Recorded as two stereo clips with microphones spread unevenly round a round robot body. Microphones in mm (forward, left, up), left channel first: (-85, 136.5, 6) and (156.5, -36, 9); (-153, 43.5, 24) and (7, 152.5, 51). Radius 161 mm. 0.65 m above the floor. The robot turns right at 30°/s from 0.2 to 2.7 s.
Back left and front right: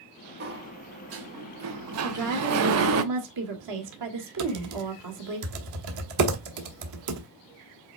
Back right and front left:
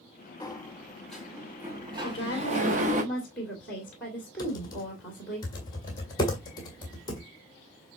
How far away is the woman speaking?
About 2.0 m.